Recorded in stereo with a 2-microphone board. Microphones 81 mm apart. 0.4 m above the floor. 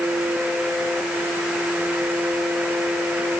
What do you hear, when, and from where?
Only background noise.